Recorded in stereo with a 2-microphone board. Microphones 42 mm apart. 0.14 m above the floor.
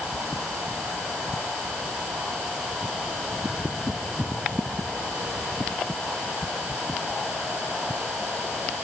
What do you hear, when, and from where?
Only background noise.